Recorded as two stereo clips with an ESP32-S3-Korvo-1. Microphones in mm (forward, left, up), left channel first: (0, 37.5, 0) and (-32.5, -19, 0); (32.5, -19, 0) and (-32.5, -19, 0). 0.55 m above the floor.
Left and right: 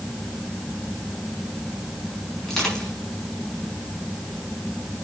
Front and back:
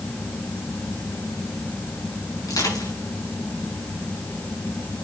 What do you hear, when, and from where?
2.4 s crushing: 20° right, 6 m